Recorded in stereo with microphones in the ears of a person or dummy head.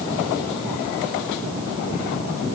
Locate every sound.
Only background noise.